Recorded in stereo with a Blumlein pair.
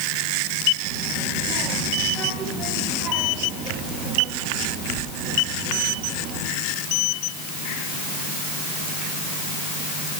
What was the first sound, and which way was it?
A child speaking, 40° right.